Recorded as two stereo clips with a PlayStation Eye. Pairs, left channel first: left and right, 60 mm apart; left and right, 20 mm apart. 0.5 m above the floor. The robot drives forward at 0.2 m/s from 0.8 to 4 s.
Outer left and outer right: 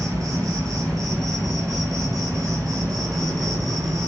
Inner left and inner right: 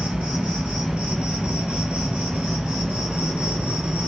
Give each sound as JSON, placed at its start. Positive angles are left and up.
{"t": 0.0, "sound": "an insect", "side_deg": -80, "distance_m": 1.6}